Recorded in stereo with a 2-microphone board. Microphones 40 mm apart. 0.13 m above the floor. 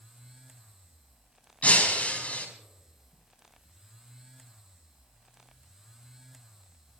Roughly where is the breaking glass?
Left.